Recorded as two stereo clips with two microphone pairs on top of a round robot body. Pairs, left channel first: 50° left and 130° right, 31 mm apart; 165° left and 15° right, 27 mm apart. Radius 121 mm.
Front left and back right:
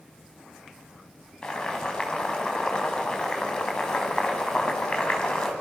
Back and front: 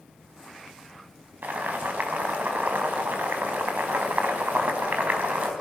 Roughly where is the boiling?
Ahead.